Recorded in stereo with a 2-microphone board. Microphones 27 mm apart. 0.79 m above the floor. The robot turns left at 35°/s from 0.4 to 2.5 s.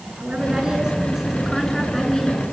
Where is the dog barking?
No dog barking in this recording.